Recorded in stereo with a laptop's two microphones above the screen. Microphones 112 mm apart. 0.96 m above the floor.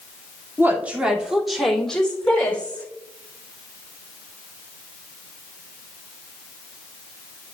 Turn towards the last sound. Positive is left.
turn(degrees=15)  # may be behind; listen again after turning